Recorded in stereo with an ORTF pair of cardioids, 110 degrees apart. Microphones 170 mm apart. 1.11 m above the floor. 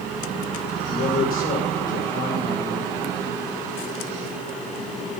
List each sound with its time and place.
0.9 s a man speaking: 60° left, 4 m